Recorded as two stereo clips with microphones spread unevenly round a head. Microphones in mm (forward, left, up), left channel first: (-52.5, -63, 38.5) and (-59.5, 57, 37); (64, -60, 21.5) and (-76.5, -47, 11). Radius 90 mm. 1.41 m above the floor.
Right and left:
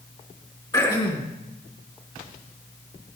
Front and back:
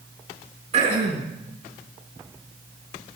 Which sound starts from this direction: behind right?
Throat clearing, at 0.7 s.